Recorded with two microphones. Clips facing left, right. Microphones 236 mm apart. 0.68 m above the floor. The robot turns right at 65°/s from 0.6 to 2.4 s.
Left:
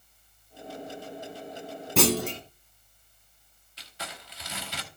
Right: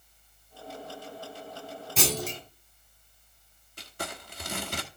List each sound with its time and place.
2.0 s a clunk: 65° left (ahead or behind), 1.4 m; by 2.4 s 60° left (ahead or behind), 1.4 m
3.8 s crumpling: 50° right (ahead or behind), 1.3 m